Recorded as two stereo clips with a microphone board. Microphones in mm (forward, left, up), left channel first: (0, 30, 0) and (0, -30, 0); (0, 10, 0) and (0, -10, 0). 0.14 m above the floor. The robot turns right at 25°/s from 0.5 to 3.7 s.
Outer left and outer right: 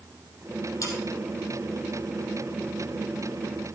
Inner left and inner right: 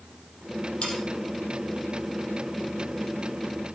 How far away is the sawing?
About 4 m.